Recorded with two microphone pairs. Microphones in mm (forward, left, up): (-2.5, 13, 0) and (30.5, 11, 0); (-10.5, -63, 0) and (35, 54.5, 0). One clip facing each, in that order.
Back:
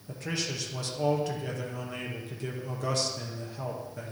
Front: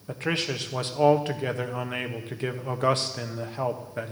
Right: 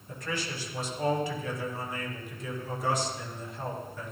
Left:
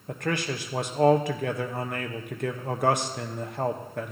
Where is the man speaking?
45° left, 0.8 m.